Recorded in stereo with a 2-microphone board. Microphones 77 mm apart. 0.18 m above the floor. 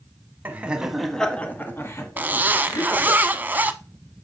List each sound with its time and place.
0.5 s laughter: 25° right (ahead or behind), 1.0 m; by 3.2 s 55° left (ahead or behind), 2 m
2.2 s a zipper: 25° right (ahead or behind), 0.6 m